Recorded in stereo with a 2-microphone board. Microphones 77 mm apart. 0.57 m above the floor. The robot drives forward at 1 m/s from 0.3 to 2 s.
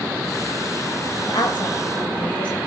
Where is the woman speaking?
70° left (ahead or behind), 3 m; by 2.6 s 75° left (ahead or behind), 3 m.